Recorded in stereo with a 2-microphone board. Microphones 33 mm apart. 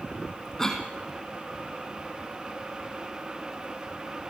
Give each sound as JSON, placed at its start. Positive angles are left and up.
{"t": 0.6, "sound": "a cough", "side_deg": 15, "distance_m": 1.9}